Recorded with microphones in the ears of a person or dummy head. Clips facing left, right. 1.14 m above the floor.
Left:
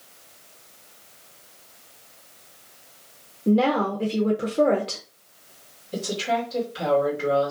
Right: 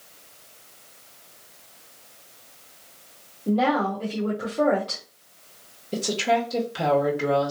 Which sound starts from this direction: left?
A woman speaking, at 3.5 s.